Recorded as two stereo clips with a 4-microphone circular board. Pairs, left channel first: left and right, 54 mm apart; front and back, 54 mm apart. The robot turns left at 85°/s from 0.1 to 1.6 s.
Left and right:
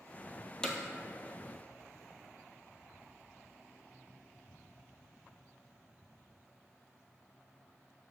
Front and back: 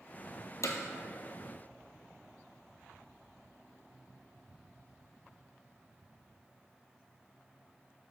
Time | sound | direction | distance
0.6 | hammering | 15° left | 1.0 m